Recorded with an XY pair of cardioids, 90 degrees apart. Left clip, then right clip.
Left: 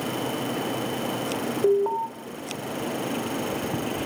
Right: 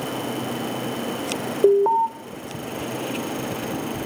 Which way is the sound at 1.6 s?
60° right.